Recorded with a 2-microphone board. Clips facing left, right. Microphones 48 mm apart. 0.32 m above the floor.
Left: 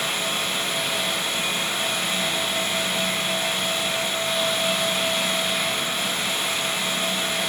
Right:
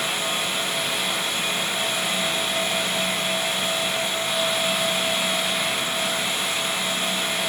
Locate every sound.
Only background noise.